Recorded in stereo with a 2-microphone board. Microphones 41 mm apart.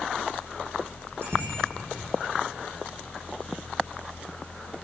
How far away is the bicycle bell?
About 6.5 m.